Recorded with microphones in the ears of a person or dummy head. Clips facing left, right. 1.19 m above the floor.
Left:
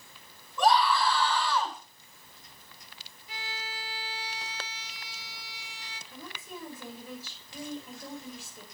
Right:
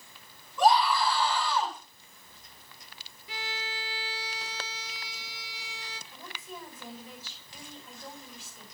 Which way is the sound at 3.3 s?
60° right (ahead or behind).